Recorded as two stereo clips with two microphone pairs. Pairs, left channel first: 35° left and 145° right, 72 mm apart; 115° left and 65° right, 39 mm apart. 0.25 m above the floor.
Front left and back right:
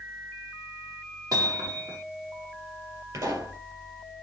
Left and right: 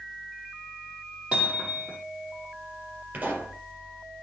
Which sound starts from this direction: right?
A pop, at 3.1 s.